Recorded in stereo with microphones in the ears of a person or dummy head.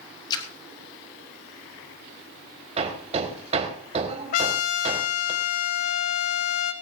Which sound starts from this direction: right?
Hammering, at 2.8 s.